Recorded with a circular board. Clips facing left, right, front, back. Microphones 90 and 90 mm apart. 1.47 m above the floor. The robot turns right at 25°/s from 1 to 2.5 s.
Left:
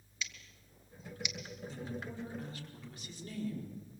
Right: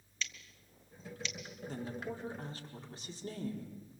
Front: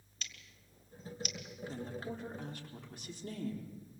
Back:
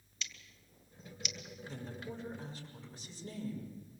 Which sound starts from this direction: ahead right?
A woman speaking, at 1.7 s.